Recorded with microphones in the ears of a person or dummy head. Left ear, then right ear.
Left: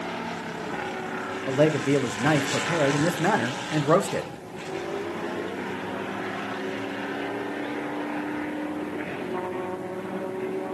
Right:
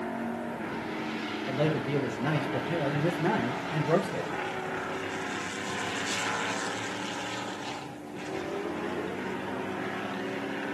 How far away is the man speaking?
About 1.2 m.